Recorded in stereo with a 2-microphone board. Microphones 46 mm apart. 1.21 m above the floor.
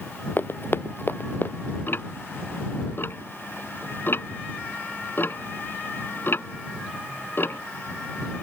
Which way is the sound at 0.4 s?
60° left (ahead or behind).